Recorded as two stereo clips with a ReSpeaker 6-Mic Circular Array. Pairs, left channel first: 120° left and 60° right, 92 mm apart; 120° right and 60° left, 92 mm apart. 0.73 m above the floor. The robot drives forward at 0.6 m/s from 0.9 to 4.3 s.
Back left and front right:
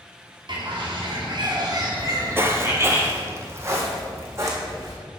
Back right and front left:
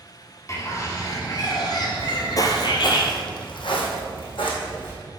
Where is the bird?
70° right, 1.7 m; by 3.0 s 115° right, 1.8 m.